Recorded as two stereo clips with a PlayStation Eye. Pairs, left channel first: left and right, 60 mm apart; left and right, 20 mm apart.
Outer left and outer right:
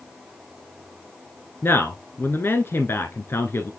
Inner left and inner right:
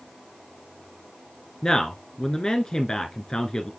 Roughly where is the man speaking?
Left.